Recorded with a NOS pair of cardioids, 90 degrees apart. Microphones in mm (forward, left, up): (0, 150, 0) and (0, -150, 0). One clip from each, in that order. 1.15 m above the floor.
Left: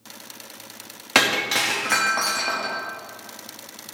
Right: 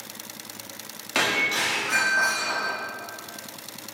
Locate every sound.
1.1 s breaking glass: 55° left, 1.3 m